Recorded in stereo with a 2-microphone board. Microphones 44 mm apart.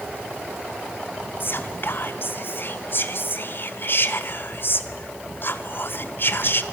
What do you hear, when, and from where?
1.4 s whispering: 50° left (ahead or behind), 1.6 m